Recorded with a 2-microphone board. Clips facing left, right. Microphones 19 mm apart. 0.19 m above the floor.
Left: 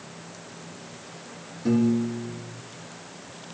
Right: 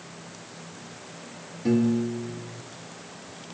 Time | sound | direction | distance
1.6 | a piano | 15° right (ahead or behind) | 1.0 m